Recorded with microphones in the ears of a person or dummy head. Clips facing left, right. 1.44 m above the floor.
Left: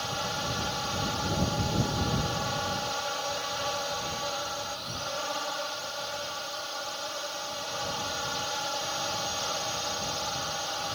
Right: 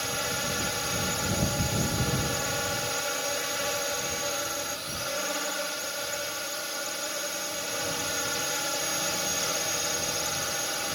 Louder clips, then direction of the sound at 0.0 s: Right 1 dB; 35° right (ahead or behind).